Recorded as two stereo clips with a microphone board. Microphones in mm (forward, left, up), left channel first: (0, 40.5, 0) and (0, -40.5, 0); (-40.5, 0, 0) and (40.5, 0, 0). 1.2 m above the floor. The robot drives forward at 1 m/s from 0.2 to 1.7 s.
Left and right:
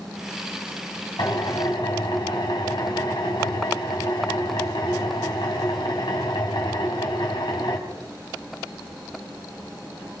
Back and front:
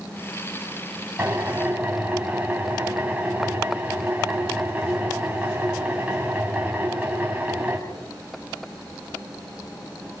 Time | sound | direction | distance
1.2 | a drill | 65° left | 4.5 m